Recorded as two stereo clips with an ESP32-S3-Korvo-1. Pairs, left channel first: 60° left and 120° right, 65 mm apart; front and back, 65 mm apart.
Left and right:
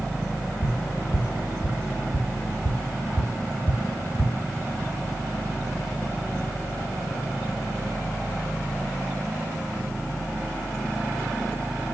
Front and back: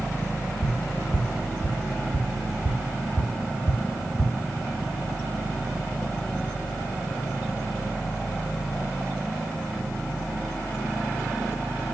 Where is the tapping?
100° left, 5 m.